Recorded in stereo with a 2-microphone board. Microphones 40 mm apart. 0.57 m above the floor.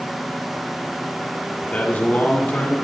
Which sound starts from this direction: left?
A man speaking, at 1.6 s.